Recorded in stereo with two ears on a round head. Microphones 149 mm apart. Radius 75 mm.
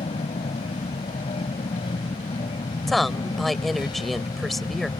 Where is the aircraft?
35° left (ahead or behind); by 5.0 s 25° left (ahead or behind).